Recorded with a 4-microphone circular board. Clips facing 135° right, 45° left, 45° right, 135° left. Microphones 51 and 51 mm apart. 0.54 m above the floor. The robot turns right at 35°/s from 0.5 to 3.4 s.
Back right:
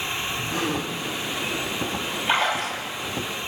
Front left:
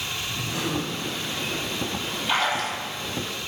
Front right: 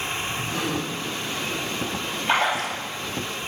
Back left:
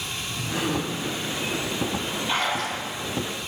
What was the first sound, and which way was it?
A gasp, 145° right.